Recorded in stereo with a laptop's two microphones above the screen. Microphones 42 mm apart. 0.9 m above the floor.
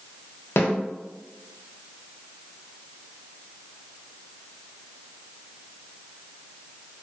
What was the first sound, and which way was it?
A snare drum, 70° left (ahead or behind).